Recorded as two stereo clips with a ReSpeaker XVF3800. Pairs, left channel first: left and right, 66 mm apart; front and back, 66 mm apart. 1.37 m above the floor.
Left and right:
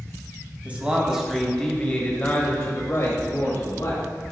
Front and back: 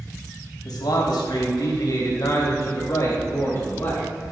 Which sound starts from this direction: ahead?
A man speaking, at 0.7 s.